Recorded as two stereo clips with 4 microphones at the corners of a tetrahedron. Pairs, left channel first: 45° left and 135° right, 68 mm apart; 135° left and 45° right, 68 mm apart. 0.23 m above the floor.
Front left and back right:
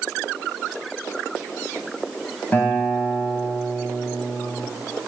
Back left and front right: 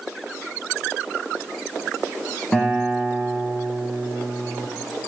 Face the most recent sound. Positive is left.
turn(degrees=75)